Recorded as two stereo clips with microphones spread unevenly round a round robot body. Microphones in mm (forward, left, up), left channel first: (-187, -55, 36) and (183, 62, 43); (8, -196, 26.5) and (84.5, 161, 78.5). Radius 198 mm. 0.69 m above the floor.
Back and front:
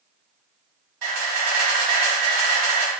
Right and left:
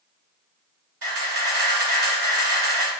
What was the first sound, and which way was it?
A camera shutter, 25° left.